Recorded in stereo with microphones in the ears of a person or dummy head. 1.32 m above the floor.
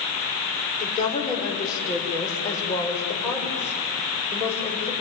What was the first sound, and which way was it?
A woman speaking, 25° left (ahead or behind).